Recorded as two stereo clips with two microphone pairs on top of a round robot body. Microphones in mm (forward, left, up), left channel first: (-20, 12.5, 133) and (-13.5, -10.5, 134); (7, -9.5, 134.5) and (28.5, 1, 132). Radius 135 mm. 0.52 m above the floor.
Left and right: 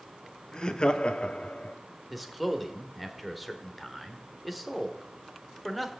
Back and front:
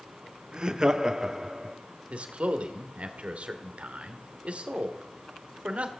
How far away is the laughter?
About 1.5 m.